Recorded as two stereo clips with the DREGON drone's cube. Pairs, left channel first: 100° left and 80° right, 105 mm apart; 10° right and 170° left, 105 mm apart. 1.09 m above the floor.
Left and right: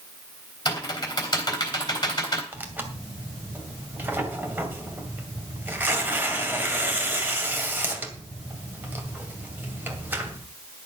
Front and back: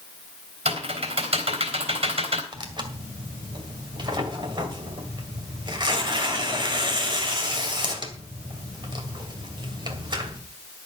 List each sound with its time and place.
0.7 s typing on a keyboard: 155° left, 3.5 m
2.5 s tearing paper: 150° right, 2 m